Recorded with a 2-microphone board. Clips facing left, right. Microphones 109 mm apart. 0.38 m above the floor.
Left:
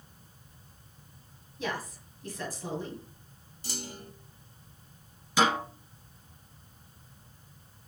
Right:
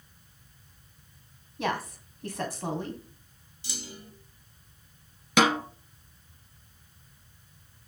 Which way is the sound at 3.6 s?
45° left (ahead or behind).